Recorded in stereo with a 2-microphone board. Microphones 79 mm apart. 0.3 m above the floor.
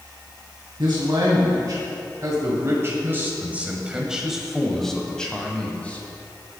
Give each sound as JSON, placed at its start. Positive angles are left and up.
{"t": 0.8, "sound": "a man speaking", "side_deg": -55, "distance_m": 2.5}